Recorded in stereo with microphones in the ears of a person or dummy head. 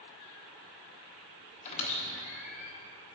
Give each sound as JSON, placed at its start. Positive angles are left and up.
{"t": 1.6, "sound": "a squeak", "side_deg": 35, "distance_m": 1.1}